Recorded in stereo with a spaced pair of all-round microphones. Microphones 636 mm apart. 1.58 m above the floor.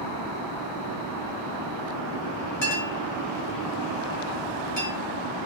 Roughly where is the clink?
Left.